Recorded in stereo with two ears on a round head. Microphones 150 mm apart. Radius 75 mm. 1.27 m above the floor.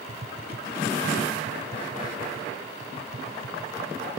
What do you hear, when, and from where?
0.1 s tapping: 40° right (ahead or behind), 0.7 m